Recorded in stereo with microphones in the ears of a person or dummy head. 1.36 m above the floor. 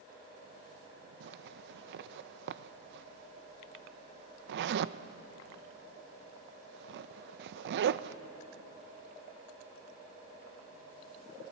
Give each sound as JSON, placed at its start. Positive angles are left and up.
{"t": 1.2, "sound": "a zipper", "side_deg": -70, "distance_m": 0.7}